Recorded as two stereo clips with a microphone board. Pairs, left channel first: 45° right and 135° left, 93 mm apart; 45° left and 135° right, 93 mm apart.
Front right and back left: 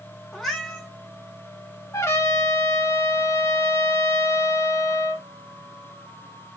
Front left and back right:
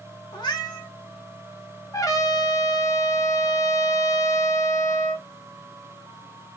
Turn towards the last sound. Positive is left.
turn(degrees=5)